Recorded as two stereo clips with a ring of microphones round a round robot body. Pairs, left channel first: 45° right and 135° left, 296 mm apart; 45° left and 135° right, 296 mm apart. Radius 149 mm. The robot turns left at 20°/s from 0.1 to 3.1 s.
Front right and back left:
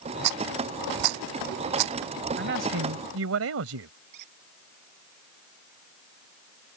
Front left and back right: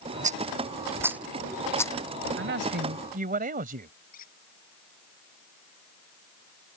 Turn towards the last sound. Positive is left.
turn(degrees=110)